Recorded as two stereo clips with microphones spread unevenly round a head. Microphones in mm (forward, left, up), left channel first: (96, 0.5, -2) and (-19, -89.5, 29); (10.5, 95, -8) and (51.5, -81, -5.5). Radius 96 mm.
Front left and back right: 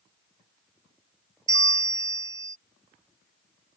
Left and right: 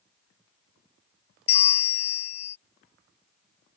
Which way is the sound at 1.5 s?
145° left.